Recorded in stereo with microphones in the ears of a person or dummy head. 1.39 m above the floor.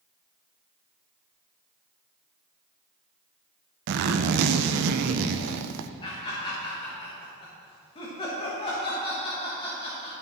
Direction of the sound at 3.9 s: 60° right (ahead or behind).